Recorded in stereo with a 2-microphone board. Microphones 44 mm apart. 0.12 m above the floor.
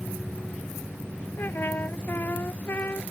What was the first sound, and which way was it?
A trumpet, 55° left (ahead or behind).